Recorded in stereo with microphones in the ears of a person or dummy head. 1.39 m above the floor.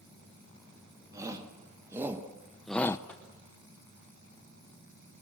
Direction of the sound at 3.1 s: 10° left (ahead or behind).